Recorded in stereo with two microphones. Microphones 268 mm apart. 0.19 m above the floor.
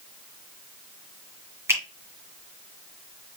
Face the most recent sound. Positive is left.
turn(degrees=-10)  # may be behind; listen again after turning